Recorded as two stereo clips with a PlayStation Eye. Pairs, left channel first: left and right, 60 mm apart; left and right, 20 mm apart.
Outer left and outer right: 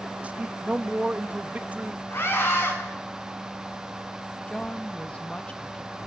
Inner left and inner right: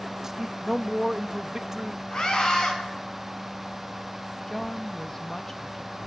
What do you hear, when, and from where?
0.2 s a man speaking: 25° right (ahead or behind), 0.6 m
2.1 s a scream: 45° left (ahead or behind), 6 m
4.5 s a woman speaking: 20° left (ahead or behind), 0.8 m